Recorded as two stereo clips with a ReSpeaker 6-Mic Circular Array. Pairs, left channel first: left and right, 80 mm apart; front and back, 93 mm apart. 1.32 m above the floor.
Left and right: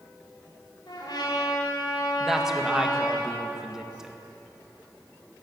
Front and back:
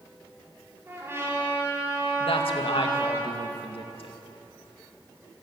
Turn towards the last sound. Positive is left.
turn(degrees=-5)